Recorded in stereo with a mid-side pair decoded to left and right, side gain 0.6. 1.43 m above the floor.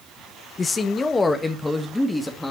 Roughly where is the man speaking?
Ahead left.